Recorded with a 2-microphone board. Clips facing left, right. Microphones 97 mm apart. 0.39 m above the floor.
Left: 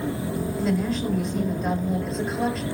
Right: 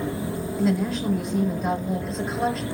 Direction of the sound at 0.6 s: Centre (ahead or behind).